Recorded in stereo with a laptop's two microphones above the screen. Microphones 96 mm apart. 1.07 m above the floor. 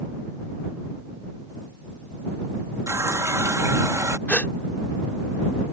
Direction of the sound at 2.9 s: 30° right (ahead or behind).